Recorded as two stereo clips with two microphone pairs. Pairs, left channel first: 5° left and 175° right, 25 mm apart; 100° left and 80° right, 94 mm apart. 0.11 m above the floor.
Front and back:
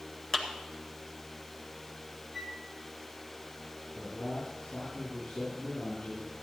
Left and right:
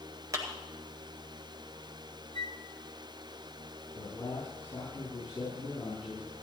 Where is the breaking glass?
No breaking glass in this recording.